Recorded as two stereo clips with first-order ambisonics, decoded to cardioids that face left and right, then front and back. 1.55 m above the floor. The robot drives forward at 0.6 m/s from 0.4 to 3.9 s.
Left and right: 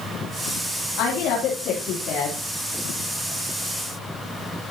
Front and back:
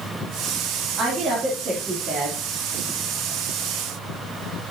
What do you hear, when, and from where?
1.0 s a woman speaking: 115° left, 3 m; by 2.4 s 125° left, 3 m